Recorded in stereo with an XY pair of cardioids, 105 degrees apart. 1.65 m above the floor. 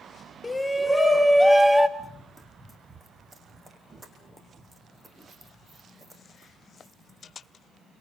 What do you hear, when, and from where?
0.4 s a shout: 15° left, 1.6 m; by 1.9 s 15° right, 2 m
2.0 s running footsteps: 15° right, 5.5 m